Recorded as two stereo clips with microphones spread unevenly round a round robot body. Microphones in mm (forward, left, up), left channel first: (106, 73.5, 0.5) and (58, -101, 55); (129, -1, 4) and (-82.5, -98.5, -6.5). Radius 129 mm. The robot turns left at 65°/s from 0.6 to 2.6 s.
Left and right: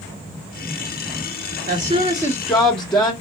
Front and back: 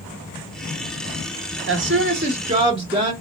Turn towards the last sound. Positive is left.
turn(degrees=145)